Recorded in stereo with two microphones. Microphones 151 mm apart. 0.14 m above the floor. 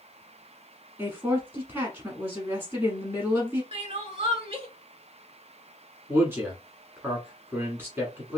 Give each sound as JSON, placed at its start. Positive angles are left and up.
{"t": 1.0, "sound": "a woman speaking", "side_deg": -15, "distance_m": 1.1}
{"t": 3.7, "sound": "crying", "side_deg": -45, "distance_m": 0.8}
{"t": 6.1, "sound": "a man speaking", "side_deg": -15, "distance_m": 1.1}